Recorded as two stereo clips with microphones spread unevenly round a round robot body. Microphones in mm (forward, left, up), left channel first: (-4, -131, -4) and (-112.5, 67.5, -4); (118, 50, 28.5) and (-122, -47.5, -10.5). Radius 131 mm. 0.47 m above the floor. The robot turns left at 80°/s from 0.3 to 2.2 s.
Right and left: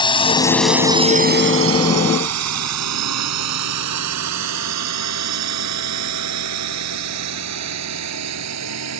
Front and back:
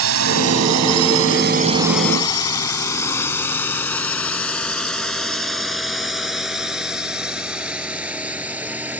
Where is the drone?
130° right; by 9.0 s 120° left.